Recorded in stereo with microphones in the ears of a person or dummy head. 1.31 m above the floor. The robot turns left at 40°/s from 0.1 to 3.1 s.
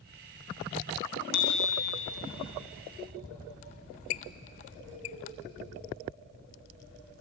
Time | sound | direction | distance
1.3 | a bicycle bell | 55° left (ahead or behind) | 3.5 m
3.6 | a squeak | 35° left (ahead or behind) | 0.6 m